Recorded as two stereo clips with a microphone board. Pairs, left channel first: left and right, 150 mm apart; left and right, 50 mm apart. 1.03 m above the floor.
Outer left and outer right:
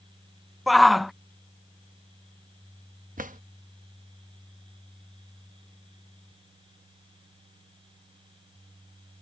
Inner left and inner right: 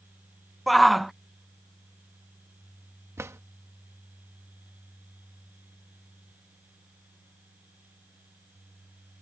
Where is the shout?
Centre (ahead or behind).